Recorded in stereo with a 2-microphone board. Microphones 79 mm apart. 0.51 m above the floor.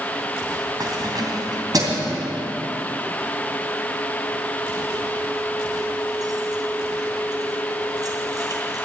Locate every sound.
0.8 s keys jangling: 55° right (ahead or behind), 2.5 m